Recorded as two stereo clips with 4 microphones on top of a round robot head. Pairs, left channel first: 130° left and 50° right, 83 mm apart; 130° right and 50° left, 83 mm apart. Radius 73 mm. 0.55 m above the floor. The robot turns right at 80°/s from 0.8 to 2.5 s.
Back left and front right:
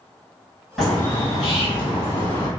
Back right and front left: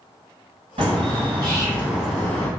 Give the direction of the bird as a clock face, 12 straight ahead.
11 o'clock.